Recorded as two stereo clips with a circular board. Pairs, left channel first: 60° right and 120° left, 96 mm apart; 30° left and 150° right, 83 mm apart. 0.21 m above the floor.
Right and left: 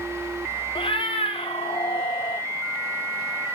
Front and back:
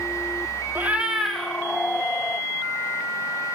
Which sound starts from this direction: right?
A cat meowing, at 0.8 s.